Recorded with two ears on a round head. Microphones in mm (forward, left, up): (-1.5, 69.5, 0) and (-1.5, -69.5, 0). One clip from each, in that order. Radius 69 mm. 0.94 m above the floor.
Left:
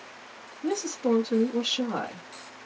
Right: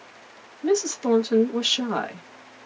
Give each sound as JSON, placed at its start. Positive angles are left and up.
{"t": 0.6, "sound": "a woman speaking", "side_deg": -70, "distance_m": 1.0}